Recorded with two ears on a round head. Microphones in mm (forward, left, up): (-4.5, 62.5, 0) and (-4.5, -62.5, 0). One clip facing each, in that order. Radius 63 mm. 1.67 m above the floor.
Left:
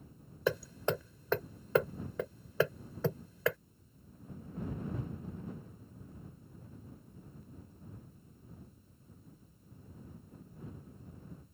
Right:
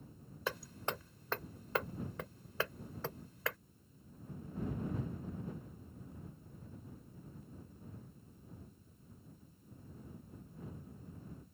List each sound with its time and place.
0.5 s hammering: 85° left